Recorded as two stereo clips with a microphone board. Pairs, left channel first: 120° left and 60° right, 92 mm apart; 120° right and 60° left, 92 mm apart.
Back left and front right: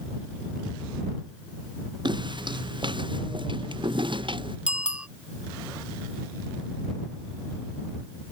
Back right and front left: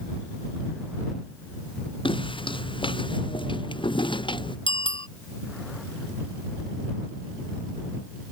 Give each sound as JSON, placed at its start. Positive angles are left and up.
{"t": 2.0, "sound": "footsteps", "azimuth_deg": -95}
{"t": 4.7, "sound": "a bicycle bell", "azimuth_deg": -140}